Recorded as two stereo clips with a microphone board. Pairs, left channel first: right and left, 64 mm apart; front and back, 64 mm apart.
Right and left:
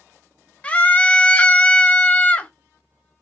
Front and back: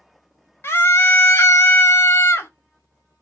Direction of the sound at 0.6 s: 25° right.